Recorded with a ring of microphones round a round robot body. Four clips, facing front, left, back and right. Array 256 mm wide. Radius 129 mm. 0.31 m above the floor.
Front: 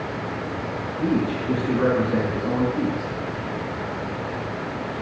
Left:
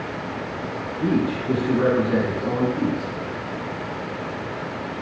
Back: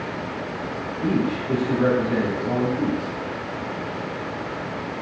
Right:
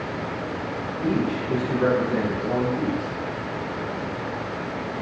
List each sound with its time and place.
1.0 s a man speaking: 60° left, 3 m